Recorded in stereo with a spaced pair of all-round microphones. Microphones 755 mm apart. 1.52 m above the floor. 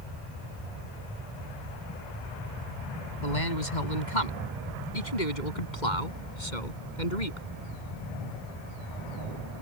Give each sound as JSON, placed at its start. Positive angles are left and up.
{"t": 3.2, "sound": "a man speaking", "side_deg": 75}